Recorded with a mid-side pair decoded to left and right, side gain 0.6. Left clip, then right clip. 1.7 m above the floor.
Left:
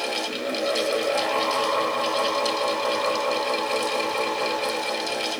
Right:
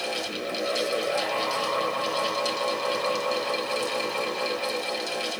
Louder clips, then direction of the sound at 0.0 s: Left 3 dB; 20° left.